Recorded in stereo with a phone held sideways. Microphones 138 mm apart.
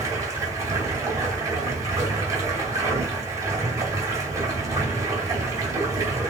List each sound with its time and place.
0.0 s running water: 25° right (ahead or behind), 2.0 m